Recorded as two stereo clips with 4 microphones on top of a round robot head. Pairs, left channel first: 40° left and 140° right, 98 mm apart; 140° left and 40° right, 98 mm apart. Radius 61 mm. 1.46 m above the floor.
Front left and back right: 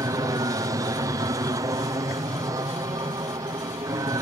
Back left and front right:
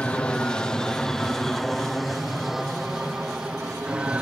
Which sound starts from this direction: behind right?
An aircraft, at 0.0 s.